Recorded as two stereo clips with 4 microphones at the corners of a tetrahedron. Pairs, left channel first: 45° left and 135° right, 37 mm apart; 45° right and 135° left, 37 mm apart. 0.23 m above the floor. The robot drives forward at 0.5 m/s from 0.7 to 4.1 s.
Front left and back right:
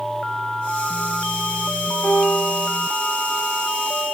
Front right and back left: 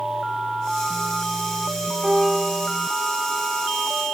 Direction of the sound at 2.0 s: 80° left.